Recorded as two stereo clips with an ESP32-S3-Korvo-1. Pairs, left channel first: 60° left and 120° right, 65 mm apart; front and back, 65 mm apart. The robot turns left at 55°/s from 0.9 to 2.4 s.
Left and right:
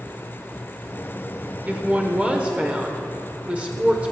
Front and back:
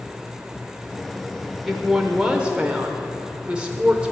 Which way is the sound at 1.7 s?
95° right.